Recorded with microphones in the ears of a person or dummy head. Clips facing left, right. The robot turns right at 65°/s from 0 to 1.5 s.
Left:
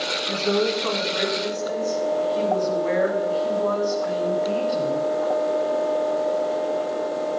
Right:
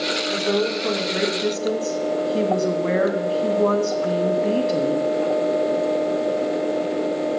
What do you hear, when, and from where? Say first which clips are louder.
0.3 s a woman speaking: even; 145° left, 2 m; by 5.0 s 135° right, 2 m